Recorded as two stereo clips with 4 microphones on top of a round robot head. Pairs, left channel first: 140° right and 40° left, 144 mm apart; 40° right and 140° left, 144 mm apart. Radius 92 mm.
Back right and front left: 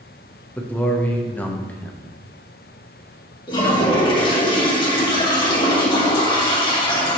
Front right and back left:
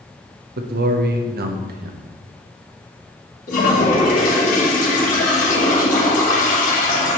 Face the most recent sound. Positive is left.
turn(degrees=-80)